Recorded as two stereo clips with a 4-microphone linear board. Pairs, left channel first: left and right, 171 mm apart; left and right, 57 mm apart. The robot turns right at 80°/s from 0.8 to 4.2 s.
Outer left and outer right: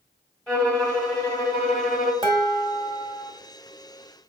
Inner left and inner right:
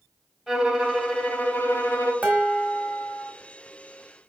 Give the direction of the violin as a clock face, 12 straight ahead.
12 o'clock.